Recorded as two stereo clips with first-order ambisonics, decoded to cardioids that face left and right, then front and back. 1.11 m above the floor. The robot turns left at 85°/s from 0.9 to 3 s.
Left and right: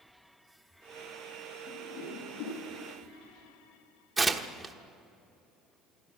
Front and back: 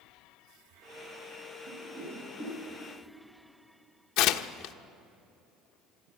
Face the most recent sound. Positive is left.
turn(degrees=-10)